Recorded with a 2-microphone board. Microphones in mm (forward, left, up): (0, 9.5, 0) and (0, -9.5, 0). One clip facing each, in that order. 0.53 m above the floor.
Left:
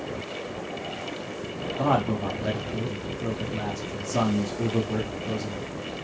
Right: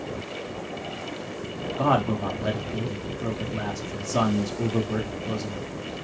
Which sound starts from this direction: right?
A man speaking, at 1.8 s.